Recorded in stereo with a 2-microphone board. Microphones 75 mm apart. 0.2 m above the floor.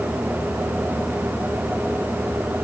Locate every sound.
Only background noise.